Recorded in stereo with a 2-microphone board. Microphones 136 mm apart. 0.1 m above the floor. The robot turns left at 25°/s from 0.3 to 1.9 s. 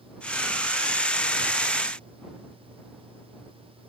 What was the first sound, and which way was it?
Only background noise.